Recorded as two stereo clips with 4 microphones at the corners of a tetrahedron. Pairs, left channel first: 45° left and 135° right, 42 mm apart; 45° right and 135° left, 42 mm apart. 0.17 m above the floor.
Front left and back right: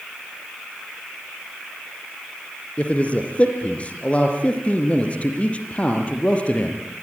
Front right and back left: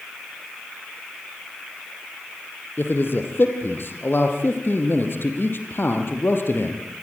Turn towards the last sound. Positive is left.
turn(degrees=-15)